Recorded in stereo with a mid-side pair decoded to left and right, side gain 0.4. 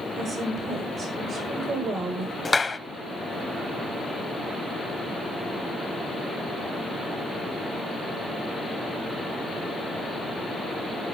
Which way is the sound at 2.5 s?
25° left.